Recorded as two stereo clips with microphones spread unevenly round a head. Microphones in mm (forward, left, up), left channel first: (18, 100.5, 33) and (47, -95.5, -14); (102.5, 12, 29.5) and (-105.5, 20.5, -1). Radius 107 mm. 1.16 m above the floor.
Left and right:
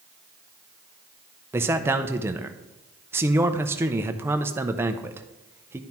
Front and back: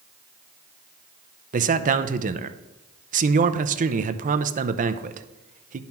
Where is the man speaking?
150° right, 0.6 m.